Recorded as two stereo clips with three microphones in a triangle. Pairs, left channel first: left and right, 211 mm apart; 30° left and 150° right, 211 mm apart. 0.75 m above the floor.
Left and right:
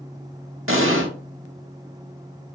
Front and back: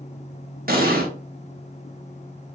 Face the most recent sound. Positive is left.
turn(degrees=-105)